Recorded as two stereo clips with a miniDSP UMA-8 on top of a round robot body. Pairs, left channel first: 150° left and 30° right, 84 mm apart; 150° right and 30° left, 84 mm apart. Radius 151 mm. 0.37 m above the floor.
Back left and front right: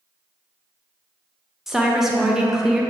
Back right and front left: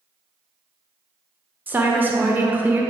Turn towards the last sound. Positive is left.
turn(degrees=45)